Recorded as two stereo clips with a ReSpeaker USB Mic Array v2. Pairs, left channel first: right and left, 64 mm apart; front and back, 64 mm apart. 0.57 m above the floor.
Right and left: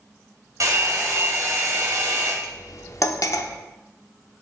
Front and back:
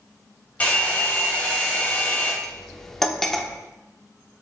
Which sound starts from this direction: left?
A hair dryer, at 0.6 s.